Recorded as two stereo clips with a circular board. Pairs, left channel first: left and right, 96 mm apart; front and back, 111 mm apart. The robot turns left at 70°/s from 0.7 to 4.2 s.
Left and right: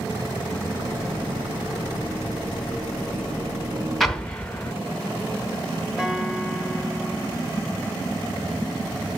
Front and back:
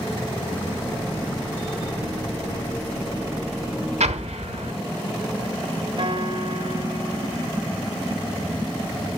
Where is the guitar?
170° right, 1.4 m.